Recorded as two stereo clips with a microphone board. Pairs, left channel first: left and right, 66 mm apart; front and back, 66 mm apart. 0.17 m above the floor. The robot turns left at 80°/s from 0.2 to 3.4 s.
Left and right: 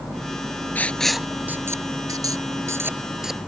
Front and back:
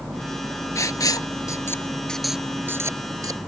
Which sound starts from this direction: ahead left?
Writing, at 0.8 s.